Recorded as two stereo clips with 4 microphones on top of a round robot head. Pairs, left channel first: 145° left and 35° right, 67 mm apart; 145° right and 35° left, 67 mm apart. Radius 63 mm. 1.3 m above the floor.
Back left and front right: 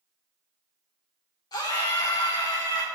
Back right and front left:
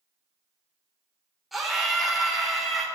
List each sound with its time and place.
1.5 s a scream: 120° left, 4 m